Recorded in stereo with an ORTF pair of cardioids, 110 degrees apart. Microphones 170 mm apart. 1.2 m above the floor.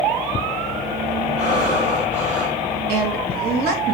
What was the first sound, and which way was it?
Breathing, 45° right.